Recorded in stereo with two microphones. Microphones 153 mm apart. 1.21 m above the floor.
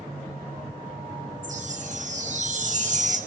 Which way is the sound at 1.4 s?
55° right (ahead or behind).